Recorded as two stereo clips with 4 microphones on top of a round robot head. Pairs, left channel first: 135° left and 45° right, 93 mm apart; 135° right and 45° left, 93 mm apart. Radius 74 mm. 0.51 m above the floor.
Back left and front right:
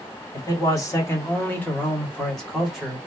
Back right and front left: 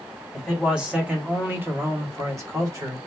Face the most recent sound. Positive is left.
turn(degrees=35)